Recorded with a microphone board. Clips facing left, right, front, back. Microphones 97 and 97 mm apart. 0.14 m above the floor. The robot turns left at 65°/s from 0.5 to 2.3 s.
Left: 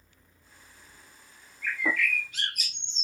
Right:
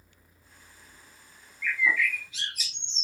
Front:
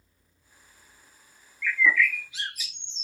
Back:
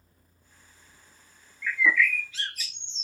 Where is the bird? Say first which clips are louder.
Right 2 dB, front 1 dB; 115° left, 0.6 m; by 3.0 s 75° left, 0.6 m.